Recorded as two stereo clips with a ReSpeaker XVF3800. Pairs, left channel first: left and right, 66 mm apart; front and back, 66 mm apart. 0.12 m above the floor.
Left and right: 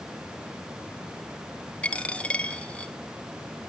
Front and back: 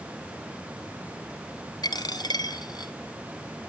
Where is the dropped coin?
15° left, 1.5 m.